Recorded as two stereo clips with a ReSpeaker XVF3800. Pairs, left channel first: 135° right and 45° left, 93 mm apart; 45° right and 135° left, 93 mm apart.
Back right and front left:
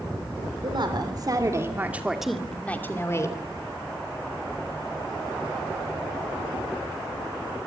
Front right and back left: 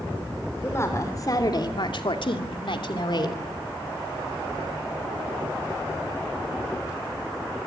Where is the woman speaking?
15° left, 3 m; by 3.4 s 80° right, 3 m.